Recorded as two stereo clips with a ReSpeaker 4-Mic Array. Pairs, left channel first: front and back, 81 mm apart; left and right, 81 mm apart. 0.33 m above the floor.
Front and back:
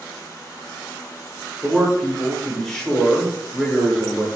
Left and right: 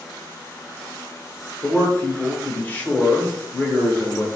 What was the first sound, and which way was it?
A man speaking, 80° left.